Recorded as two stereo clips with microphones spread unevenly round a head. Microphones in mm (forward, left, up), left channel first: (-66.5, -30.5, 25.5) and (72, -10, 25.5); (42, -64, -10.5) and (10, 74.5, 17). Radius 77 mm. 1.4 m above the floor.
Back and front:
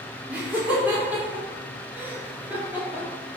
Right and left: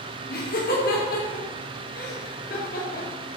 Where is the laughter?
70° right, 5 m; by 3.1 s 65° right, 3.5 m.